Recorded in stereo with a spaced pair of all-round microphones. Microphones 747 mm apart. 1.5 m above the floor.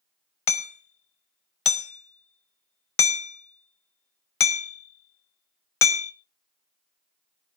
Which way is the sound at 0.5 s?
45° left (ahead or behind).